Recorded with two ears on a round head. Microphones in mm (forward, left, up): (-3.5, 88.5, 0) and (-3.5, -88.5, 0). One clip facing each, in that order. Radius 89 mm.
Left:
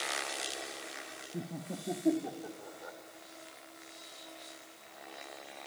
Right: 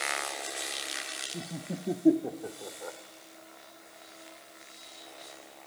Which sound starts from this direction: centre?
Laughter, at 1.3 s.